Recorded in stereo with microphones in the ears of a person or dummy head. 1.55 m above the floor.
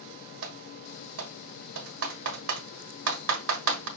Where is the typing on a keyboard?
65° right (ahead or behind), 1.3 m.